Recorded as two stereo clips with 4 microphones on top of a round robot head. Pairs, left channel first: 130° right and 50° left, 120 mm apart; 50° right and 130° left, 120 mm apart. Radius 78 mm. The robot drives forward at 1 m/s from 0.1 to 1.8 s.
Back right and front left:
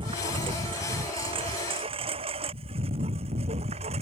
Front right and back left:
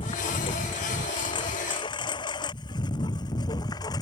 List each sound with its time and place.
0.0 s a lawn mower: straight ahead; by 4.0 s 10° left